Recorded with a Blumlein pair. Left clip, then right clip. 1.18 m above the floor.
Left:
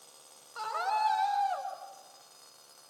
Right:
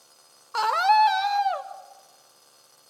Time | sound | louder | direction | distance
0.5 | a scream | right 12 dB | 45° right | 1.8 m